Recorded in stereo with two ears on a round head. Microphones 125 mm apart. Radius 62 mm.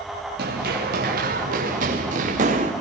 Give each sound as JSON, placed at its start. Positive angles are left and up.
{"t": 0.4, "sound": "running footsteps", "side_deg": -75, "distance_m": 5.5}